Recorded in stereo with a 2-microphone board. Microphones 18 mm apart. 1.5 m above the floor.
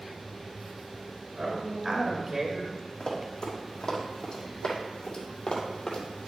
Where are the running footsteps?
35° left (ahead or behind), 3.5 m; by 6.3 s 40° left (ahead or behind), 2.0 m.